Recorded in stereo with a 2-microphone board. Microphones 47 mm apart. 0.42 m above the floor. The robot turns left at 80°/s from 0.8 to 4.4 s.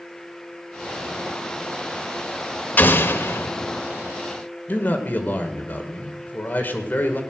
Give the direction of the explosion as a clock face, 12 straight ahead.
8 o'clock.